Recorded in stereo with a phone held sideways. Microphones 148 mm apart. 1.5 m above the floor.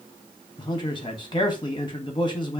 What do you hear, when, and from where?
0.6 s a man speaking: 30° left (ahead or behind), 1.0 m